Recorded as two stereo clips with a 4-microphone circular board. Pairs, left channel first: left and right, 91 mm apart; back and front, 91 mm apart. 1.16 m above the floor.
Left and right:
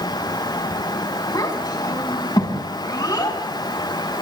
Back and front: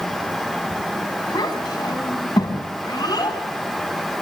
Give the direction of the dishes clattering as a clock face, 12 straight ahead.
I don't hear dishes clattering.